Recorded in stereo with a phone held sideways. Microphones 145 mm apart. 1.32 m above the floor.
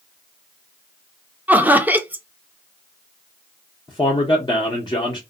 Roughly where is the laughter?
Centre.